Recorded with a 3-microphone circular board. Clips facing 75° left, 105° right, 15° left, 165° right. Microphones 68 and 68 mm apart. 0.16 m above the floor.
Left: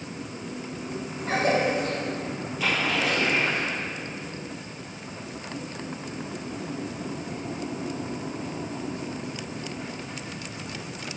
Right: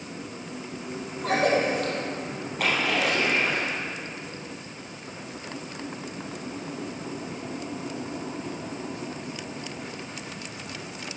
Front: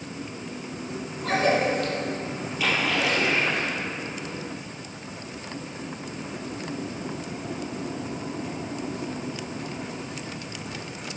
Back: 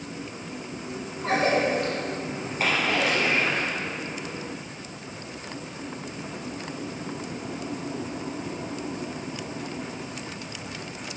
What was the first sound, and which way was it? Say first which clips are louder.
A cough: right 1 dB, even; 105° right.